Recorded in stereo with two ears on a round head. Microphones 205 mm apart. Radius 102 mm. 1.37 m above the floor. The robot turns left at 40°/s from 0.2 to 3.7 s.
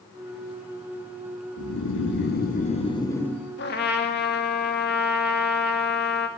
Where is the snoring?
75° left, 1.3 m; by 3.5 s straight ahead, 1.3 m.